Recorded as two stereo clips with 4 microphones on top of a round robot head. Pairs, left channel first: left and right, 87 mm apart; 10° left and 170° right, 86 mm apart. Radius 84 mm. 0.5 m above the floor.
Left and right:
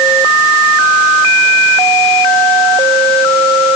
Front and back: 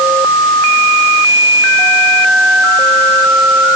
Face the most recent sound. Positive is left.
No sound to turn to.